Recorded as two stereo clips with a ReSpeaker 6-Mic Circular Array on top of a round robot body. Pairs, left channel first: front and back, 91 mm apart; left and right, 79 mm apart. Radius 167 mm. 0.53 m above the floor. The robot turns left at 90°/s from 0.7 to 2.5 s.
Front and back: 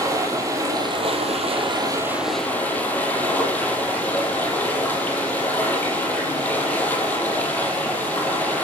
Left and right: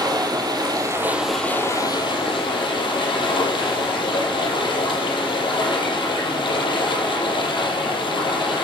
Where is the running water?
125° right, 5 m; by 8.6 s 75° left, 5 m.